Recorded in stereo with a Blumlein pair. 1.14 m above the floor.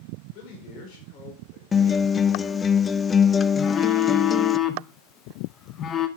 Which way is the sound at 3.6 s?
25° left.